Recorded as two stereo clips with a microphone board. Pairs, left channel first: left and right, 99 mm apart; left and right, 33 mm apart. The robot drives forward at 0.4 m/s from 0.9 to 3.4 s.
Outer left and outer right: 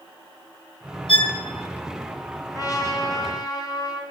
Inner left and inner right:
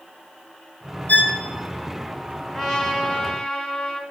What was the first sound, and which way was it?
A violin, 60° left (ahead or behind).